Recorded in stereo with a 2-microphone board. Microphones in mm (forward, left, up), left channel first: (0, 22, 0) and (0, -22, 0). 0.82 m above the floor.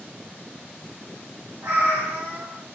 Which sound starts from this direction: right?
A cat meowing, at 1.6 s.